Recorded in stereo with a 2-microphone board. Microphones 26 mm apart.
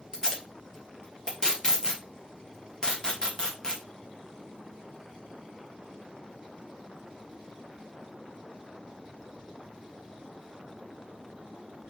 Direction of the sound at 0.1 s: 25° left (ahead or behind).